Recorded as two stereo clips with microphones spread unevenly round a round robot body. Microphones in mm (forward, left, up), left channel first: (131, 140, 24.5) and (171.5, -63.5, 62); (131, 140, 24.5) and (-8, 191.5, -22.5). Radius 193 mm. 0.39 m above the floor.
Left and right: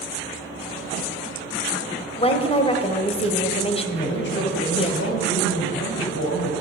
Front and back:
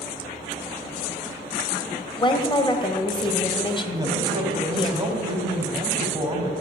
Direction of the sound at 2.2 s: 45° left.